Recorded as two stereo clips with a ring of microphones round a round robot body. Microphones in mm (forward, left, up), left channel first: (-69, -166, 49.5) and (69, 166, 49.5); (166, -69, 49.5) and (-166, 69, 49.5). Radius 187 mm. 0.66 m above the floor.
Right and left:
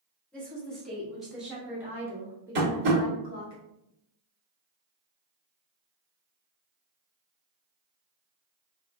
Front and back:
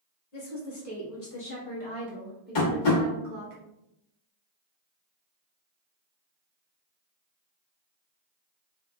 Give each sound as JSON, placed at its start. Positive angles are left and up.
{"t": 0.3, "sound": "a woman speaking", "azimuth_deg": -25, "distance_m": 1.6}
{"t": 2.5, "sound": "tapping", "azimuth_deg": 5, "distance_m": 1.1}